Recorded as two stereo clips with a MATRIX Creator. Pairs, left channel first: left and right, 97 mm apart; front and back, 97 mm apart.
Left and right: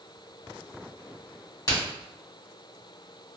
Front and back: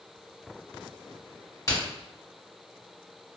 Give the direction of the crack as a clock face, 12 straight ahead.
11 o'clock.